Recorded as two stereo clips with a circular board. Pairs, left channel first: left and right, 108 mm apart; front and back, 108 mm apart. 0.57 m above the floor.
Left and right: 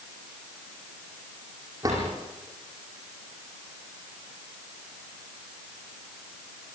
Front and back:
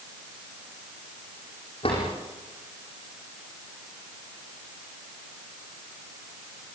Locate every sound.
1.8 s a drawer: 30° right, 9.5 m